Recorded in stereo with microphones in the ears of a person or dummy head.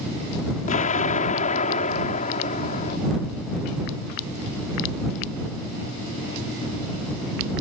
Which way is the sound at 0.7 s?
40° left (ahead or behind).